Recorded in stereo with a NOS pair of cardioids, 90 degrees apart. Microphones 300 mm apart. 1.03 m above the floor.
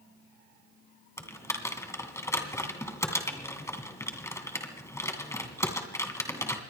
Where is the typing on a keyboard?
10° left, 2.5 m.